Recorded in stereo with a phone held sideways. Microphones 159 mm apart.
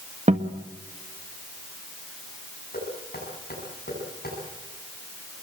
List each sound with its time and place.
0.3 s a guitar: 50° right (ahead or behind), 1.3 m
2.7 s knocking: 75° left (ahead or behind), 9 m